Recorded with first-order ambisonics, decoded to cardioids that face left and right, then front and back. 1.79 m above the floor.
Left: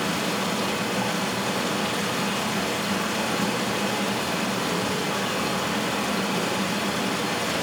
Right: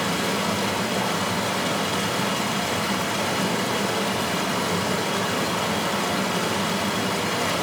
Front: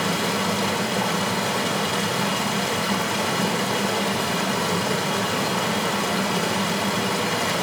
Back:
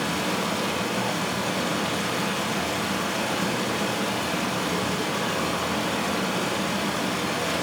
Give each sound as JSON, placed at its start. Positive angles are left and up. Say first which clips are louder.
{"t": 0.0, "sound": "running water", "louder": "right 2 dB, front 3 dB", "azimuth_deg": -45, "distance_m": 1.9}